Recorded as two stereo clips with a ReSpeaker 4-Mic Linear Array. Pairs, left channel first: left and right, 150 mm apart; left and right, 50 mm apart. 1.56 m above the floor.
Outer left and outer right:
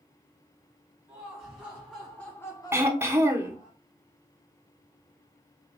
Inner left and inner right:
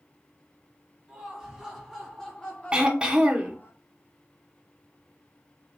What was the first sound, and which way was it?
Laughter, 15° right (ahead or behind).